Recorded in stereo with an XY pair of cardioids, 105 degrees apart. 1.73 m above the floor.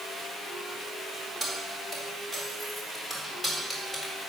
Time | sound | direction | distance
1.4 | keys jangling | 20° right | 3 m